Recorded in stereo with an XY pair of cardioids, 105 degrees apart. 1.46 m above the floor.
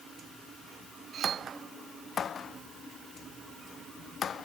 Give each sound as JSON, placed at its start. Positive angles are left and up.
{"t": 1.1, "sound": "cutlery clinking", "azimuth_deg": -55}